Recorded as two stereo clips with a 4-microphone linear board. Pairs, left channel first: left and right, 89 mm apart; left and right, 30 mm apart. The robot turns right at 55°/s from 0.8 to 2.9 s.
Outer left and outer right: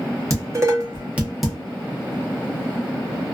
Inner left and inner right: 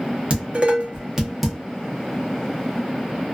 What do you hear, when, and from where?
0.3 s dishes clattering: 35° right (ahead or behind), 0.8 m; by 1.6 s 5° left (ahead or behind), 0.8 m